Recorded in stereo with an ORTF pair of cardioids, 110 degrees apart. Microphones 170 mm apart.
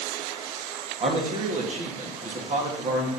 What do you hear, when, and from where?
1.0 s a man speaking: 45° right, 2.0 m